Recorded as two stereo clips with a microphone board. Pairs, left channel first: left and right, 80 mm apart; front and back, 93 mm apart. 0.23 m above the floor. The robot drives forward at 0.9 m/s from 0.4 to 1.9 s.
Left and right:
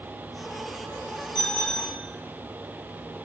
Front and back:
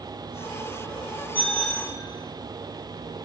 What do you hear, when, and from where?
1.4 s a bicycle bell: 70° left, 4.5 m; by 2.0 s 80° left, 4 m